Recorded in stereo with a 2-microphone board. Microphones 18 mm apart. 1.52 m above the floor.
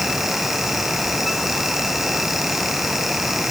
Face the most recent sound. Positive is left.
No sound to turn to.